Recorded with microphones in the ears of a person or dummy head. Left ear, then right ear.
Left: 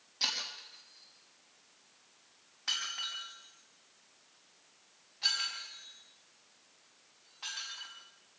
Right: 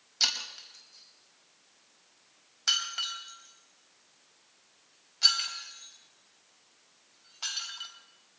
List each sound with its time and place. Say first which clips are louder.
0.2 s breaking glass: right 5 dB; 45° right (ahead or behind), 4.5 m